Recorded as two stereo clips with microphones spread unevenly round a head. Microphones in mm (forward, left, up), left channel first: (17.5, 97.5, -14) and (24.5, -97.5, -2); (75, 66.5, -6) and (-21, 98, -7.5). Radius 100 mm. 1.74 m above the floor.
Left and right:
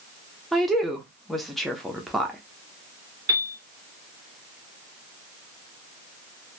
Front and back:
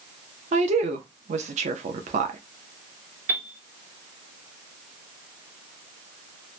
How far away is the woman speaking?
About 0.5 m.